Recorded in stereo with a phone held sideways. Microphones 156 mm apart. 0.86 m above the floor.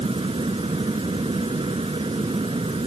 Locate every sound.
0.0 s a fan: 35° right (ahead or behind)